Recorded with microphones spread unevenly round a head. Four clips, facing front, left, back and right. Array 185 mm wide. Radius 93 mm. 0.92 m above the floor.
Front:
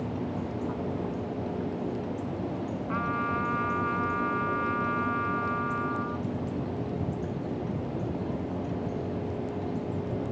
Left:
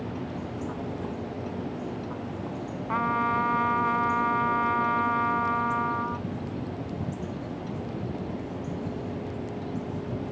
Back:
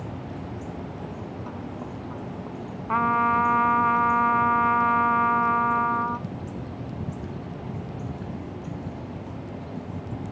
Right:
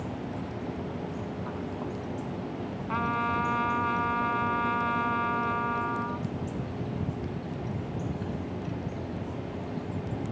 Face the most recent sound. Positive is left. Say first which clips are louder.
# left 3 dB, back 10 dB
turn(degrees=170)